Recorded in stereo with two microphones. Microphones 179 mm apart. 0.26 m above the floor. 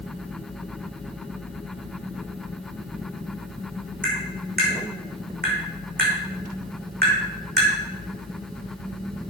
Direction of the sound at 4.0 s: 55° right (ahead or behind).